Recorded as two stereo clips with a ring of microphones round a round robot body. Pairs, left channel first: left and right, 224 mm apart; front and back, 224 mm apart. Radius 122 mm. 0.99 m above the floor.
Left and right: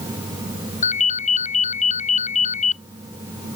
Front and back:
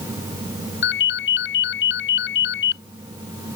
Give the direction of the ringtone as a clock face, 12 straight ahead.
11 o'clock.